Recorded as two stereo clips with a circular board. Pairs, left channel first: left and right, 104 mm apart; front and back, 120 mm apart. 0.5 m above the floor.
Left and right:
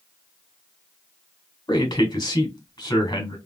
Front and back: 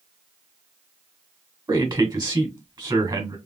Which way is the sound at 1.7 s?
135° left.